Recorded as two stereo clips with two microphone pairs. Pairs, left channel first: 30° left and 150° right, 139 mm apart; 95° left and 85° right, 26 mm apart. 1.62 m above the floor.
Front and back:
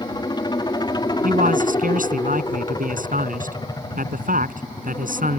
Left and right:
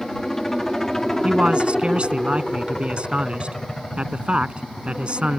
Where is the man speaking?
130° right.